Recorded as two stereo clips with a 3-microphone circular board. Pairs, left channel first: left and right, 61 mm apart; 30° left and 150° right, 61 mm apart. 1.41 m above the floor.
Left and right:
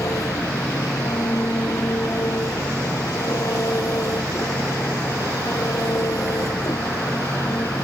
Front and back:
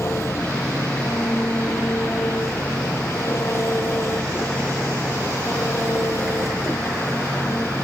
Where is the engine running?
70° left.